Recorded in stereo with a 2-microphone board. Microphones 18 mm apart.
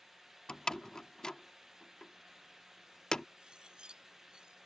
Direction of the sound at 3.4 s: 65° right (ahead or behind).